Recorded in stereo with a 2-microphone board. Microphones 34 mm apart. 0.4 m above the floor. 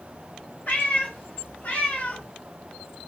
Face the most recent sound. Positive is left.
turn(degrees=45)  # may be behind; listen again after turning